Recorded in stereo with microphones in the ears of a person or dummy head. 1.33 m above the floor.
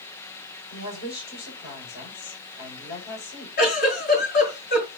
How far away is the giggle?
About 7 m.